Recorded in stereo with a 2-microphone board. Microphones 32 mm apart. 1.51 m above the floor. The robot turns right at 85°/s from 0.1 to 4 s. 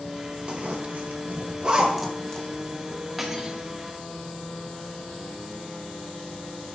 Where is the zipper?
35° right (ahead or behind), 1.1 m; by 2.5 s 30° left (ahead or behind), 1.1 m.